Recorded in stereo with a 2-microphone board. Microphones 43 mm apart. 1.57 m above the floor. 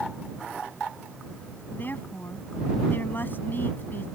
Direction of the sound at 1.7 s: 45° left (ahead or behind).